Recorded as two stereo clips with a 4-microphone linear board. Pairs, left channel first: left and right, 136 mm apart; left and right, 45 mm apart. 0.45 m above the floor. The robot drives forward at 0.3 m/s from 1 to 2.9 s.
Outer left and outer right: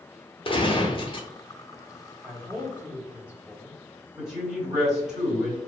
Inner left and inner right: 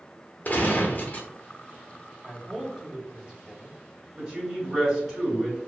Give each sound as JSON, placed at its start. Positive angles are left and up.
{"t": 0.5, "sound": "a gunshot", "side_deg": 40, "distance_m": 0.7}
{"t": 2.2, "sound": "a man speaking", "side_deg": -15, "distance_m": 0.8}
{"t": 4.2, "sound": "a woman speaking", "side_deg": -5, "distance_m": 1.8}